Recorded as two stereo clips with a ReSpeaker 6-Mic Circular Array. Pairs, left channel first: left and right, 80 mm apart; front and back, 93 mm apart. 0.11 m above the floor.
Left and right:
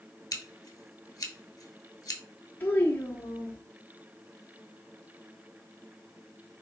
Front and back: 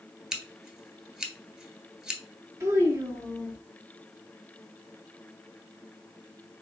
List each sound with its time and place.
0.3 s scissors: 95° left, 0.8 m
2.6 s a child speaking: 140° left, 1.2 m